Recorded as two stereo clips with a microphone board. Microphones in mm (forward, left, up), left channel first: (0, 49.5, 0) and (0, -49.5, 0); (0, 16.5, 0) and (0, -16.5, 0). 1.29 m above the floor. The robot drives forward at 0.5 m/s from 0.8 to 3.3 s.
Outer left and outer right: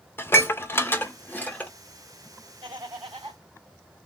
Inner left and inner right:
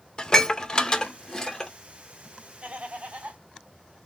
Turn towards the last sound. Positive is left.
turn(degrees=-60)  # may be behind; listen again after turning